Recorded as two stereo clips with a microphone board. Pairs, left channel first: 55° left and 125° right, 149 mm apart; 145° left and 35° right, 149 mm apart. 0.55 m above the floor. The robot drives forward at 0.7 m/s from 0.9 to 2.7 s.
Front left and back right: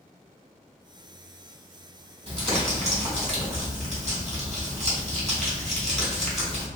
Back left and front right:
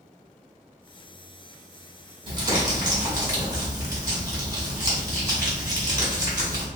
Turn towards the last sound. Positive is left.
turn(degrees=-95)